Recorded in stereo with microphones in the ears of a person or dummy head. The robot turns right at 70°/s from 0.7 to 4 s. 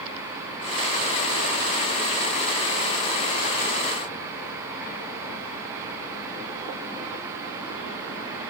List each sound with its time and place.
Only background noise.